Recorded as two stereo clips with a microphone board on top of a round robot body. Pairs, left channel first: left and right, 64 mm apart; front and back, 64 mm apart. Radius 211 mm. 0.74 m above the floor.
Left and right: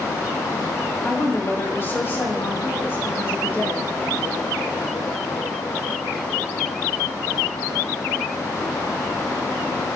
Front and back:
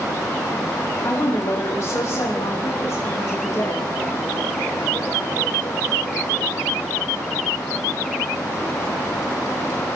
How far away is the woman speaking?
About 5.5 m.